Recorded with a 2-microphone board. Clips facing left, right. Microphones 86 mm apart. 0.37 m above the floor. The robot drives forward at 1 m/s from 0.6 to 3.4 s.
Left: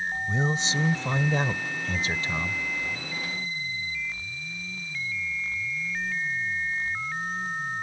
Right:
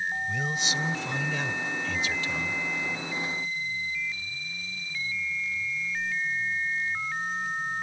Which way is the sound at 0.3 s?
30° left (ahead or behind).